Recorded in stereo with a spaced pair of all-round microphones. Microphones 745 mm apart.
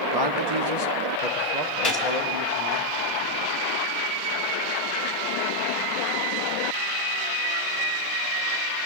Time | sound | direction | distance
0.1 | a man speaking | 30° right (ahead or behind) | 1.3 m
1.8 | a gunshot | 25° left (ahead or behind) | 3 m